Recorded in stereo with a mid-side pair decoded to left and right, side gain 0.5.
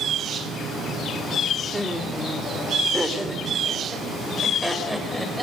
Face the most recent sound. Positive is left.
turn(degrees=-5)